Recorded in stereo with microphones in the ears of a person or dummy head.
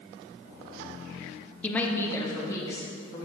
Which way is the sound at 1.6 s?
5° left (ahead or behind).